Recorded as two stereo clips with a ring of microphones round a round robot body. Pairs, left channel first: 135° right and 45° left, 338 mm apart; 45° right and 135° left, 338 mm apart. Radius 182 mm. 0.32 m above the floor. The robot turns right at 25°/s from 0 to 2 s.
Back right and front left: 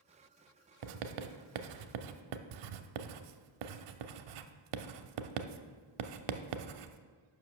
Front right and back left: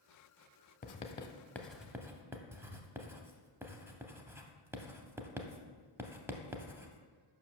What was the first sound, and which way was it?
Writing, 20° left.